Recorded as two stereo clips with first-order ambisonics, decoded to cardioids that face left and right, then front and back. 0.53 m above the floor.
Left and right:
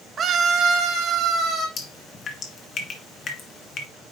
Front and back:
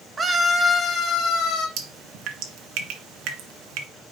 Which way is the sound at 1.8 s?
150° left.